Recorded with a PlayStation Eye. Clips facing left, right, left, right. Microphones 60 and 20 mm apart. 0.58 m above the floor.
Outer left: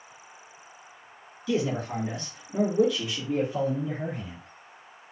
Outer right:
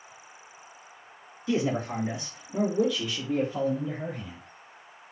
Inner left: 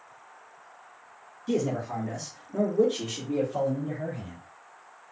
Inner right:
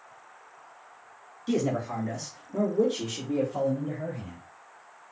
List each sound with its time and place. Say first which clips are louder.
1.5 s a man speaking: even, even; 35° right (ahead or behind), 1.3 m; by 4.4 s 30° left (ahead or behind), 2.5 m